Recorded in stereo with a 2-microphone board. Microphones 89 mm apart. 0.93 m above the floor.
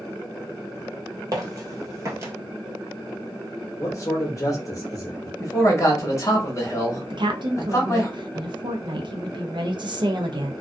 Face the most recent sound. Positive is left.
turn(degrees=-60)  # may be behind; listen again after turning